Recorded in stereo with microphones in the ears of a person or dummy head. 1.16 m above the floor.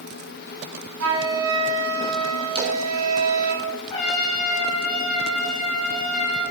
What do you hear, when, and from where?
1.0 s a flute: 85° right, 1.3 m
2.5 s a splash: 25° right (ahead or behind), 1.3 m
3.9 s a trumpet: 25° left (ahead or behind), 3 m